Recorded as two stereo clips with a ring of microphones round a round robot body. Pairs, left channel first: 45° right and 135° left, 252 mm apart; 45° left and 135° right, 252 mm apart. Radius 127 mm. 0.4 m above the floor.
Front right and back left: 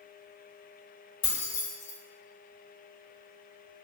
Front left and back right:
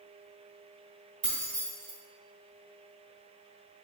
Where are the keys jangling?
80° right, 1.1 m.